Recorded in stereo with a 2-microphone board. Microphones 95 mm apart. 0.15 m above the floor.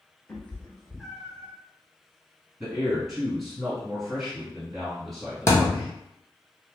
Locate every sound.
0.3 s a cat meowing: 15° left (ahead or behind), 0.9 m; by 1.5 s 25° right (ahead or behind), 0.9 m
2.6 s a man speaking: centre (ahead or behind), 1.9 m
5.5 s a thud: 30° left (ahead or behind), 0.7 m